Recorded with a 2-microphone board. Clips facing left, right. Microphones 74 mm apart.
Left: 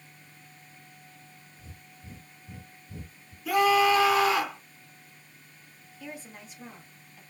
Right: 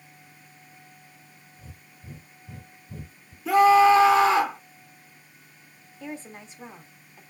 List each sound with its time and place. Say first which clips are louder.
1.6 s breathing: right 2 dB; 40° right (ahead or behind), 1.6 m
3.5 s a scream: right 6 dB; 30° right (ahead or behind), 2 m
6.0 s a woman speaking: right 5 dB; 30° right (ahead or behind), 1.7 m